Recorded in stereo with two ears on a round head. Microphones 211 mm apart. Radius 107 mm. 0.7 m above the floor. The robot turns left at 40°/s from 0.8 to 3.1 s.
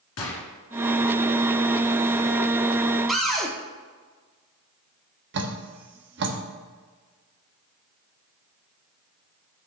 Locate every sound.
0.2 s a gunshot: 75° left (ahead or behind), 1.6 m
3.1 s a cupboard door: centre (ahead or behind), 1.1 m
5.3 s dripping: 50° right (ahead or behind), 1.3 m